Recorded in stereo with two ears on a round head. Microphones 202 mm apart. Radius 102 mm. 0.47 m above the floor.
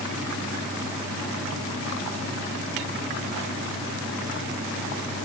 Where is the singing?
I don't hear singing.